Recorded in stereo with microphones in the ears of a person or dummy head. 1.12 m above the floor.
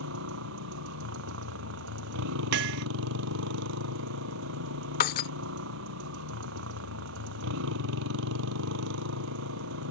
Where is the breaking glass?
45° left (ahead or behind).